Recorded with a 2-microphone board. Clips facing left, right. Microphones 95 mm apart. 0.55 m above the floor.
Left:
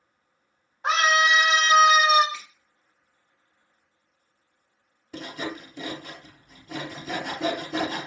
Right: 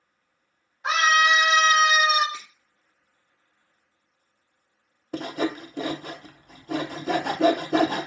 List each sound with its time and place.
0.8 s a scream: 40° left (ahead or behind), 2 m; by 2.2 s 50° left (ahead or behind), 1.7 m
2.3 s a finger snap: 30° right (ahead or behind), 1.1 m
5.1 s sawing: 50° right (ahead or behind), 0.5 m